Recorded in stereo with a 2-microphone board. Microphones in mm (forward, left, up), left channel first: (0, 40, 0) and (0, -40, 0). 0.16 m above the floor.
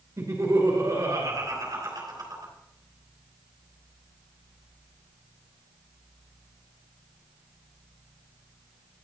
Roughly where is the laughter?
Right.